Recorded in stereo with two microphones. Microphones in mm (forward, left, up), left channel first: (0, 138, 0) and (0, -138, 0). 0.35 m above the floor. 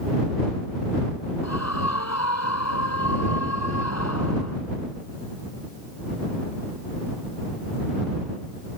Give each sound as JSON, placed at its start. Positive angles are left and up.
{"t": 1.4, "sound": "a scream", "side_deg": 70}